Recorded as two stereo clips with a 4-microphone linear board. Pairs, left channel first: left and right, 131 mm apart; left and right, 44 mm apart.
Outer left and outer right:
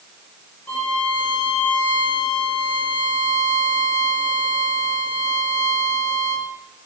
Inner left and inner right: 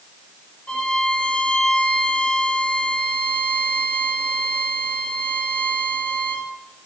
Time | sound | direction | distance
0.7 | a violin | 15° left (ahead or behind) | 5 m